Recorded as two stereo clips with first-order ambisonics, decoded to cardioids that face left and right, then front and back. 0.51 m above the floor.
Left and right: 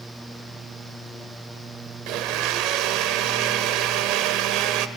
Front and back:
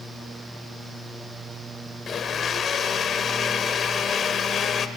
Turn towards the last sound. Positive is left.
turn(degrees=-65)